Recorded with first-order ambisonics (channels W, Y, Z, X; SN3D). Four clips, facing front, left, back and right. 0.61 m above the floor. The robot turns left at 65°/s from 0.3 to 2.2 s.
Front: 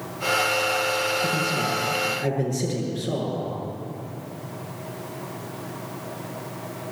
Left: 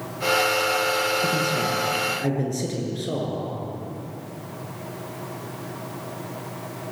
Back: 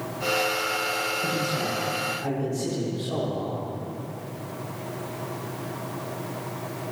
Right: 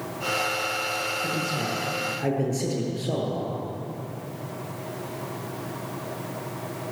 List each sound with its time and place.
1.2 s a man speaking: 110° left, 8.5 m; by 3.6 s 50° left, 8.5 m